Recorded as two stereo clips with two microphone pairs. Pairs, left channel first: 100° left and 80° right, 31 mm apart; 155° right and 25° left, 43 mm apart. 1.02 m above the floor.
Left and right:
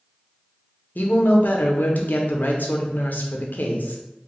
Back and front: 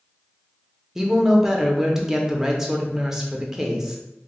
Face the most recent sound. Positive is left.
turn(degrees=105)